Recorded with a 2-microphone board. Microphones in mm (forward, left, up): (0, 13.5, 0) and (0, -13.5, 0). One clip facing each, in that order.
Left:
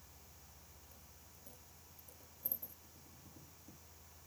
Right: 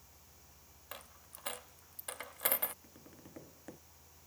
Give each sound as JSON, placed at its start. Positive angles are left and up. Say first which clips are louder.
{"t": 0.9, "sound": "a dropped coin", "louder": "right 10 dB", "side_deg": -75}
{"t": 2.8, "sound": "tapping", "louder": "right 5 dB", "side_deg": -85}